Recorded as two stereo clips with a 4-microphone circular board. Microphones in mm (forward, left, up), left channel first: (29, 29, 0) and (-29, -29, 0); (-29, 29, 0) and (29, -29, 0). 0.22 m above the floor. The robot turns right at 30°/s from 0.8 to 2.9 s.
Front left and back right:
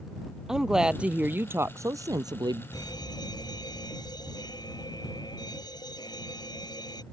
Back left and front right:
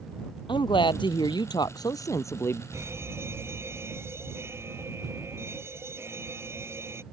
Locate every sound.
0.5 s a woman speaking: 145° left; by 2.6 s 165° right
2.7 s a fire alarm: 10° left; by 7.0 s 15° left